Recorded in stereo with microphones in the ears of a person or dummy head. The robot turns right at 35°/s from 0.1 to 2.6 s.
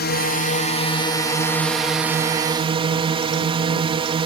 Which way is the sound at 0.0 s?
120° left.